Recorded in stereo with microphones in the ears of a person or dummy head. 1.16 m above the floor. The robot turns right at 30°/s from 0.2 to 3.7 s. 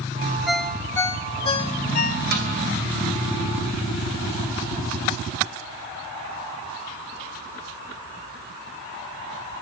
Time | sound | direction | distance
0.5 | a ringtone | 5° left | 0.7 m
2.3 | a snare drum | 55° right (ahead or behind) | 3 m